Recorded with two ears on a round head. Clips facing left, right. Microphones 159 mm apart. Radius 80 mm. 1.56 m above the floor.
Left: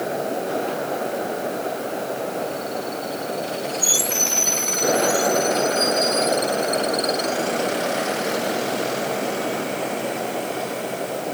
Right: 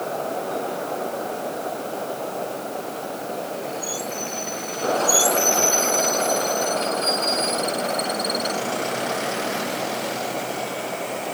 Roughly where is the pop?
No pop in this recording.